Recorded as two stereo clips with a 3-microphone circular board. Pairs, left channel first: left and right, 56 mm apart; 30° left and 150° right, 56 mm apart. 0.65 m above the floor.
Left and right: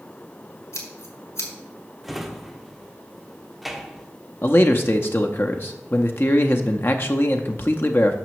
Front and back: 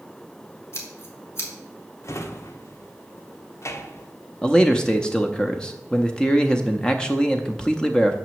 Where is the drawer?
5° right, 0.9 m.